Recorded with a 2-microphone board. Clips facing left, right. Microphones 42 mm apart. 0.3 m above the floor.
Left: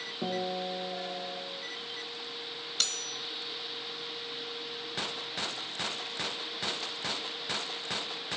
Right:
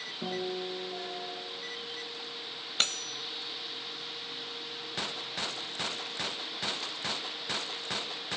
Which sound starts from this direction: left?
A guitar, at 0.2 s.